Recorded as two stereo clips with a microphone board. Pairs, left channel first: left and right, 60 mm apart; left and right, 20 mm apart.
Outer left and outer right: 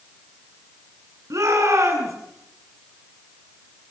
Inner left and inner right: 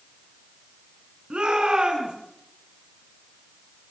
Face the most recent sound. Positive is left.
turn(degrees=-60)  # may be behind; listen again after turning